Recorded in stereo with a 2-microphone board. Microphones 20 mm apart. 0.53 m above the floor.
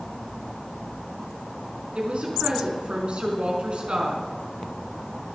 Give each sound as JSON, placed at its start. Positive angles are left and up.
{"t": 1.9, "sound": "a woman speaking", "side_deg": -65, "distance_m": 5.0}